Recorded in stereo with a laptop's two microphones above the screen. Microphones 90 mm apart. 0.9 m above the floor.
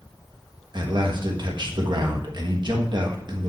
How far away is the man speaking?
About 1.4 m.